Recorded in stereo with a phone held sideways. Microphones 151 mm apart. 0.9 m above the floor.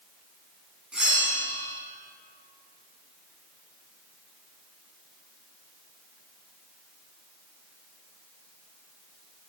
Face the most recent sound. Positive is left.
turn(degrees=-5)  # may be behind; listen again after turning